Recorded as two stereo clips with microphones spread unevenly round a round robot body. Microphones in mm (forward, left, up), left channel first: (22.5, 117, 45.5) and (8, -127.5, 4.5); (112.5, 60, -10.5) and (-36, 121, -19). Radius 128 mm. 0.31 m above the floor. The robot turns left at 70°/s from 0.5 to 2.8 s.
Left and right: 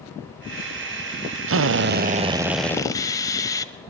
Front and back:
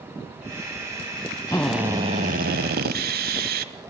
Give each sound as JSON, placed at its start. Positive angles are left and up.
{"t": 1.5, "sound": "a drill", "azimuth_deg": -100, "distance_m": 0.8}